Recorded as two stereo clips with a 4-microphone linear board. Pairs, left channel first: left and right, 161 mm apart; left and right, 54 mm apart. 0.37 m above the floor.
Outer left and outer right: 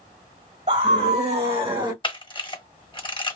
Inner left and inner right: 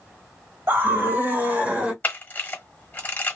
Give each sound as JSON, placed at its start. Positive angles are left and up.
{"t": 0.7, "sound": "a scream", "side_deg": -45, "distance_m": 1.9}
{"t": 2.0, "sound": "a camera shutter", "side_deg": 35, "distance_m": 1.0}